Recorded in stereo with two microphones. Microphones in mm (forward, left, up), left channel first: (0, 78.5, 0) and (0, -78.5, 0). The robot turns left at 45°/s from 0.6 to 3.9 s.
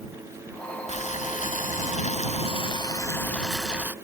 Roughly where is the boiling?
Behind left.